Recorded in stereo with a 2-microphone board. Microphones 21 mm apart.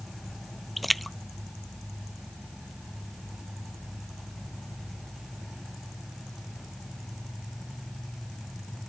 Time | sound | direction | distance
0.8 | a splash | centre (ahead or behind) | ?